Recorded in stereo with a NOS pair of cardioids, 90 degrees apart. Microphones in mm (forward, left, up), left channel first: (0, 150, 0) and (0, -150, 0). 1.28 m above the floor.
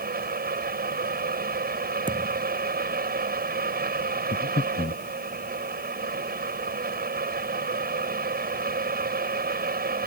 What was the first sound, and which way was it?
A fan, 30° right.